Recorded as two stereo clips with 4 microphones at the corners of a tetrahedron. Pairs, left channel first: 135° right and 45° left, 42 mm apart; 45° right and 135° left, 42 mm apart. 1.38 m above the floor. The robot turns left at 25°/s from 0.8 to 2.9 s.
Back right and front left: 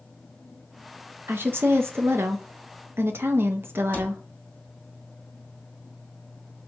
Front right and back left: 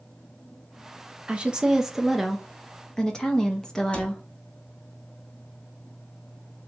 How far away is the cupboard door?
About 1.2 m.